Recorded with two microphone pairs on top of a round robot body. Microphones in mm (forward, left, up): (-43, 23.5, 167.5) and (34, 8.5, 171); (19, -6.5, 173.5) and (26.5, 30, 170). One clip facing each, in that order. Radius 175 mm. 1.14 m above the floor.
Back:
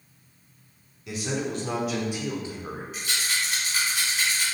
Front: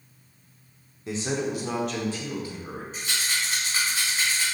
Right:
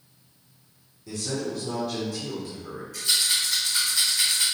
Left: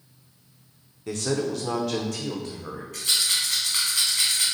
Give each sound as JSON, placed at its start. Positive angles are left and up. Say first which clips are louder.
{"t": 1.1, "sound": "a man speaking", "louder": "front 2 dB, left 4 dB", "azimuth_deg": 45, "distance_m": 0.8}
{"t": 2.9, "sound": "a rattle", "louder": "even, even", "azimuth_deg": 45, "distance_m": 1.3}